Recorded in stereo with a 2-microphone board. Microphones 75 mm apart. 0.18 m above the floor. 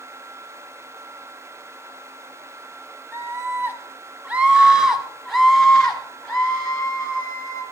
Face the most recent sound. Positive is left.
turn(degrees=30)  # may be behind; listen again after turning